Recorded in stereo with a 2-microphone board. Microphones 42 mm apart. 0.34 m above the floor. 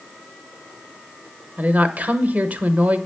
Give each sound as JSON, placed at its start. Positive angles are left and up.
{"t": 1.6, "sound": "a woman speaking", "side_deg": -40, "distance_m": 1.1}